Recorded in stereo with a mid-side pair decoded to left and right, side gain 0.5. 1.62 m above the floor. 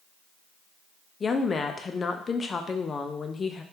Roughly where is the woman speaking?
Ahead left.